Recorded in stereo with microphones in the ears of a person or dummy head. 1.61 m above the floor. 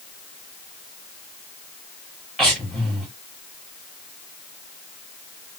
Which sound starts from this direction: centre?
Breathing, at 2.4 s.